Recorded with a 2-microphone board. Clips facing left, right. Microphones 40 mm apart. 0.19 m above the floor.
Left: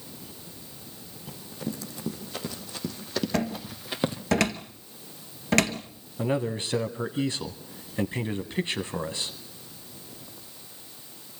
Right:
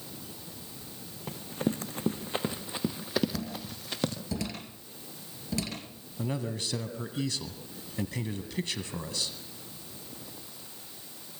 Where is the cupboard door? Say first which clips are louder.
Left 8 dB; 70° left (ahead or behind), 1.9 m.